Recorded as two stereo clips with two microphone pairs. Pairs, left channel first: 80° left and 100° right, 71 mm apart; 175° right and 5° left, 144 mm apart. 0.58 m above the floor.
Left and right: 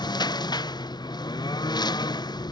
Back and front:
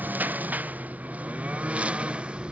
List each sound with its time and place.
0.0 s a lawn mower: 85° left; by 2.5 s 90° left